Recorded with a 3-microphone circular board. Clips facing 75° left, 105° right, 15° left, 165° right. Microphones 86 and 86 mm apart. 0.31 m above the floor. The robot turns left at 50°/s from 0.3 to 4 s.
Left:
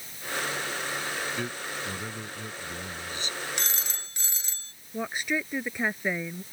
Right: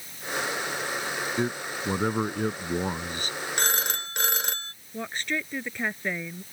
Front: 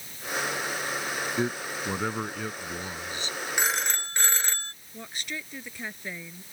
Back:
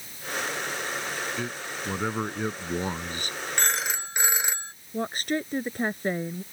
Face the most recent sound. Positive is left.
turn(degrees=155)